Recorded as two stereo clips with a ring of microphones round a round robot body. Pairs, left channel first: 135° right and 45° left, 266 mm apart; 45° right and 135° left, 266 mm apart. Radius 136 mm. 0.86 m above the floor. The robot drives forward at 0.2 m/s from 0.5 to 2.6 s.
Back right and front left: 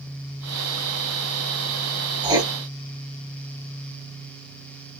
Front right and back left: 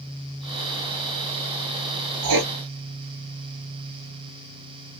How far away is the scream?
No scream in this recording.